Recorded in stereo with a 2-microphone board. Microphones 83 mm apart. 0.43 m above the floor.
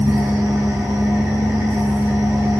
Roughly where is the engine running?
Right.